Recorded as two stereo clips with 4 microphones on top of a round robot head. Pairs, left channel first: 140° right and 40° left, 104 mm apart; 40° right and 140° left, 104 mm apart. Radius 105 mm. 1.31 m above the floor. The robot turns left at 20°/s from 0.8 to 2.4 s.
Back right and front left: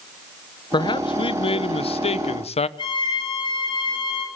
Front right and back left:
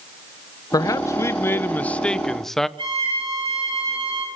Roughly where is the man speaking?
Right.